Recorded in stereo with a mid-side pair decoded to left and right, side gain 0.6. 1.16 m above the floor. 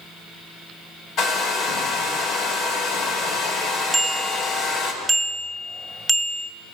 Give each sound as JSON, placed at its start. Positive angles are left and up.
{"t": 1.2, "sound": "a hair dryer", "azimuth_deg": 60, "distance_m": 8.0}
{"t": 3.9, "sound": "a bicycle bell", "azimuth_deg": -5, "distance_m": 2.5}